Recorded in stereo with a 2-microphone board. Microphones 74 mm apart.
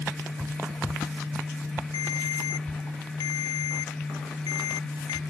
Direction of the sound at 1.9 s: 75° left (ahead or behind).